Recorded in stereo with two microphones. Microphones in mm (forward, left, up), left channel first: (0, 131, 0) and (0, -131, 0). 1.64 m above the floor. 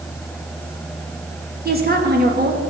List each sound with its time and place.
1.6 s a woman speaking: 35° right (ahead or behind), 2 m